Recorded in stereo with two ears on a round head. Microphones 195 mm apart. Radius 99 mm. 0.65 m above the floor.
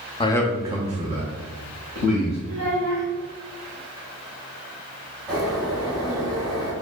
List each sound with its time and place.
0.2 s a man speaking: 25° left (ahead or behind), 0.5 m; by 2.4 s 50° right (ahead or behind), 2 m
2.5 s a child speaking: 80° right, 1.0 m
5.3 s a bird: 15° right (ahead or behind), 1.6 m